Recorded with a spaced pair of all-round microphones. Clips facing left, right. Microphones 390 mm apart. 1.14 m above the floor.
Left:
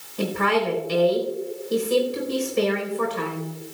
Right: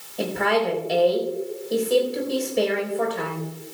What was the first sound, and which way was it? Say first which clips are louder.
A woman speaking: even; 15° left (ahead or behind).